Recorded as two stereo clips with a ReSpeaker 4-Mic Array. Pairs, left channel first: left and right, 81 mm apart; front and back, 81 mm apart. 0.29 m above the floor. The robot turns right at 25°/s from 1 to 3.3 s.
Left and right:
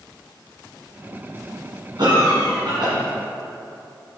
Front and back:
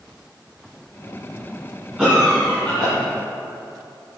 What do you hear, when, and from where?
2.0 s a cough: 105° right, 2 m; by 2.9 s 80° right, 2 m